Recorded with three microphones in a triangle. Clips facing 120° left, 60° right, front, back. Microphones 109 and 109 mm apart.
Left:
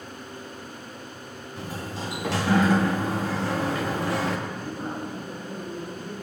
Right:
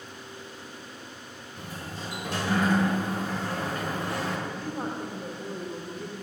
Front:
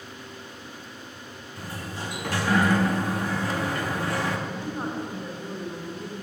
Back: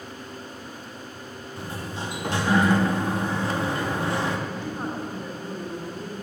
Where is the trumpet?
I don't hear a trumpet.